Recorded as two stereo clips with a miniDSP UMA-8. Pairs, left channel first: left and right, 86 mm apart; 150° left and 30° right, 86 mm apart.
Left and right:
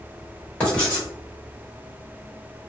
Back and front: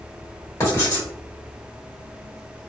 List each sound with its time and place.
0.6 s writing: 145° left, 1.5 m